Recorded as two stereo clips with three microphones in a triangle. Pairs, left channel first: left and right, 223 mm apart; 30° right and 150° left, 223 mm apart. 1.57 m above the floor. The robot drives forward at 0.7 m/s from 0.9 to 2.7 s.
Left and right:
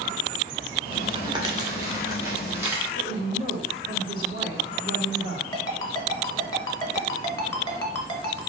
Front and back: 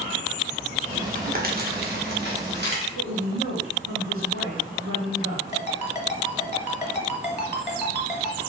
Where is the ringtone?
20° left, 1.2 m.